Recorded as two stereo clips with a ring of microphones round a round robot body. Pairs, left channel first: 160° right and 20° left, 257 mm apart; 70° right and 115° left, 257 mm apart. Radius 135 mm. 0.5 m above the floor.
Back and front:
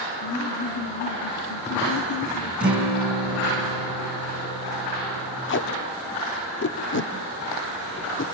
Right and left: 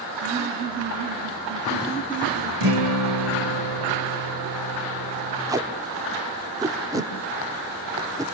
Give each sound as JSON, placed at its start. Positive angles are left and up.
{"t": 0.2, "sound": "laughter", "azimuth_deg": 165, "distance_m": 4.5}
{"t": 2.6, "sound": "a guitar", "azimuth_deg": 110, "distance_m": 6.5}
{"t": 5.5, "sound": "tape being pulled", "azimuth_deg": -175, "distance_m": 1.6}